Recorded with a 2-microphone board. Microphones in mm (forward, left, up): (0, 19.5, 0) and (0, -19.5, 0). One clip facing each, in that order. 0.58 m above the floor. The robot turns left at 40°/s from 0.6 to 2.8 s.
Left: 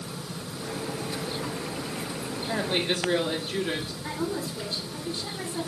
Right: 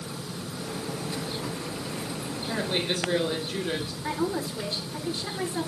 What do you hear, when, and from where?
2.5 s a woman speaking: 25° left (ahead or behind), 1.4 m; by 3.9 s 30° left (ahead or behind), 1.4 m
4.0 s a woman speaking: 5° right (ahead or behind), 2 m